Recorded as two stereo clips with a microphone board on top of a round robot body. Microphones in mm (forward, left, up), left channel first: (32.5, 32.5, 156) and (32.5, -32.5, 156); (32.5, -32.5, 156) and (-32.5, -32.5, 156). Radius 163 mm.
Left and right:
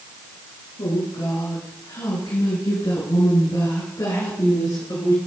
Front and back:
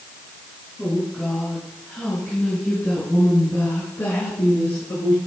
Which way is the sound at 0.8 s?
80° left.